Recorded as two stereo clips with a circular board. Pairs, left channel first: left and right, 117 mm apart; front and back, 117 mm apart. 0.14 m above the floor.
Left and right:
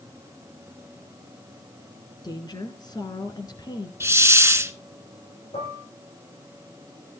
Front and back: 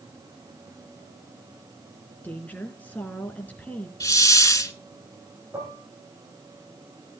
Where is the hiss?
40° right, 0.7 m.